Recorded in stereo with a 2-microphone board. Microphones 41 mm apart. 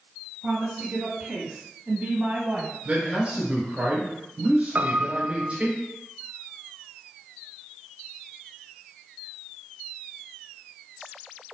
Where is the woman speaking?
25° right (ahead or behind), 1.9 m; by 2.8 s 35° right (ahead or behind), 1.6 m.